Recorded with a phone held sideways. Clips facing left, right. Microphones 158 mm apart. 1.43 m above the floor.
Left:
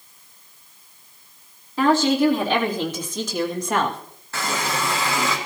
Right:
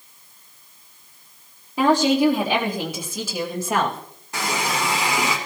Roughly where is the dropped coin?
No dropped coin in this recording.